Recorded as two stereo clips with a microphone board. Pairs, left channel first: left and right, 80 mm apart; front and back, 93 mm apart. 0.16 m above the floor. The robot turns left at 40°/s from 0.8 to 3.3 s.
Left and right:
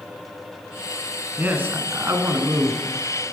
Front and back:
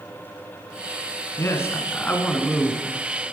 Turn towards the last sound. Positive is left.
turn(degrees=-110)